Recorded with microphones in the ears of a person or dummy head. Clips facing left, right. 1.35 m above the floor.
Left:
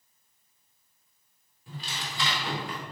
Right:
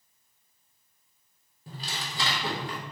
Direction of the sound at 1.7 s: 35° right (ahead or behind).